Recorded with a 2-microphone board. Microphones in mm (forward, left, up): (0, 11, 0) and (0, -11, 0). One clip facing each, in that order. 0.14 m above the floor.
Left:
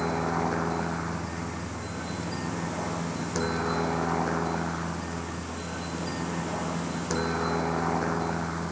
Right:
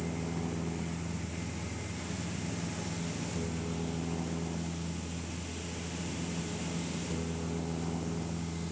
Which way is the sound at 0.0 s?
75° left (ahead or behind).